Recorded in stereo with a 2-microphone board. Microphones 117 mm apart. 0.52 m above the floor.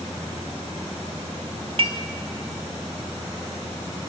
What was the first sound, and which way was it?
Dishes clattering, 60° right (ahead or behind).